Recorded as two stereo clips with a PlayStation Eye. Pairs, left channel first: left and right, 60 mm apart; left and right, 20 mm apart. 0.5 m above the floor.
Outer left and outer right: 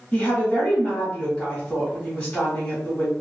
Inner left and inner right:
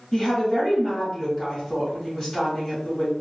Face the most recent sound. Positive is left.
turn(degrees=25)  # may be behind; listen again after turning